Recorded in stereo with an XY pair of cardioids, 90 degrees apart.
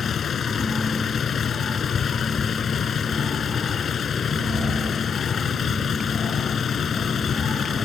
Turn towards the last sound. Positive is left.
turn(degrees=55)